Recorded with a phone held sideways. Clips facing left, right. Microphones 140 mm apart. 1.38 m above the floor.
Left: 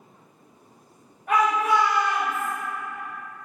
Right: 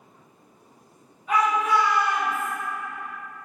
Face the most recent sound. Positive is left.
turn(degrees=-45)  # may be behind; listen again after turning